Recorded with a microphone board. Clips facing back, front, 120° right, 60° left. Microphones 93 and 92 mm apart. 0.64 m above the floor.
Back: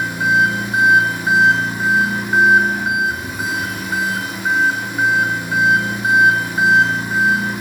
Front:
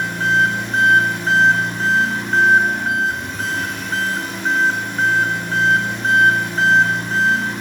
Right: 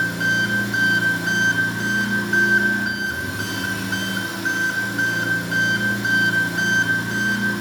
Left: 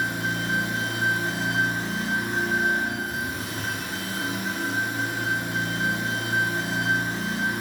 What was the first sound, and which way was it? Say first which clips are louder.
An engine running: back 1 dB, right 6 dB; 100° right.